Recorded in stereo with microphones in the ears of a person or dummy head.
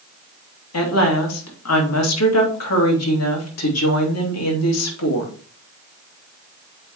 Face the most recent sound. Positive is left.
turn(degrees=80)